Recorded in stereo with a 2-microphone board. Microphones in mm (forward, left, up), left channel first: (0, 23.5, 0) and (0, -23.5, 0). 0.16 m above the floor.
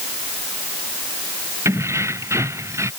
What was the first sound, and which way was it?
Keys jangling, 65° right (ahead or behind).